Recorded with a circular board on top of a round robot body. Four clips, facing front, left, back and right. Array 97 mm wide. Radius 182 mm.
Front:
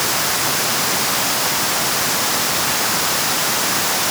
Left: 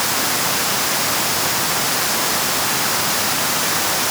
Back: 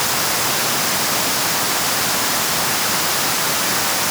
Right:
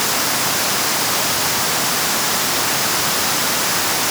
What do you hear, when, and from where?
Only background noise.